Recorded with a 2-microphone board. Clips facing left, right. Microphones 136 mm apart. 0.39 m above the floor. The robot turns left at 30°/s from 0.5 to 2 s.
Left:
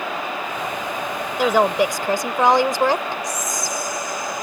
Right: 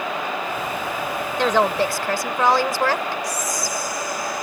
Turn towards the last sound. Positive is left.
turn(degrees=20)  # may be behind; listen again after turning